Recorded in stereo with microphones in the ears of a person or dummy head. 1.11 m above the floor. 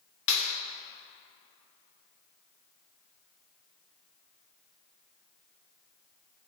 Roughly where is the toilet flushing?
No toilet flushing in this recording.